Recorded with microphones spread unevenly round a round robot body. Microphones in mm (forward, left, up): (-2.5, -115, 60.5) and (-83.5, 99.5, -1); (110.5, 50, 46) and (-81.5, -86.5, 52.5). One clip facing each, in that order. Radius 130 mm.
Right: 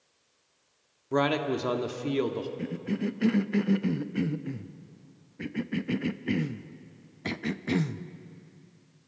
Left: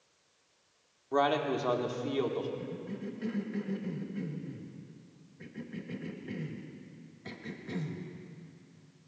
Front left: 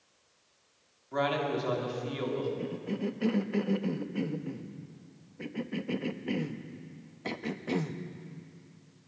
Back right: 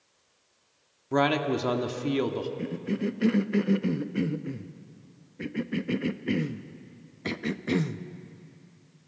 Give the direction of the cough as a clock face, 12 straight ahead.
3 o'clock.